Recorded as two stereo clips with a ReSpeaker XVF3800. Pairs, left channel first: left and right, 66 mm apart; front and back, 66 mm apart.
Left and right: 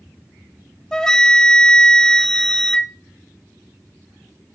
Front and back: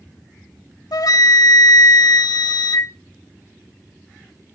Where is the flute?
10° left, 0.5 m.